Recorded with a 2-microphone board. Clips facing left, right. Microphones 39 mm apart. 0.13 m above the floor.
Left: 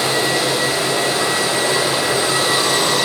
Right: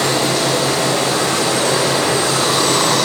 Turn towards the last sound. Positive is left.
turn(degrees=-80)